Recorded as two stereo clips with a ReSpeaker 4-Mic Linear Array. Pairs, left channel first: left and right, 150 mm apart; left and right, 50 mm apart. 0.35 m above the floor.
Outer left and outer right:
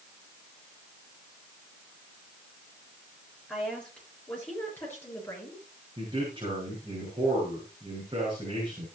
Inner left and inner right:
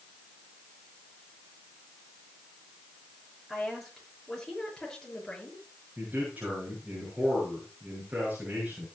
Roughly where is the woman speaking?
Centre.